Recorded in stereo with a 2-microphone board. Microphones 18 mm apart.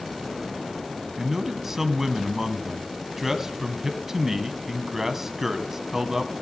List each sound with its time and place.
1.2 s a man speaking: 25° right (ahead or behind), 2 m